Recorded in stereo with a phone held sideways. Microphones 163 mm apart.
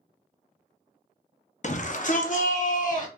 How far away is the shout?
About 0.5 m.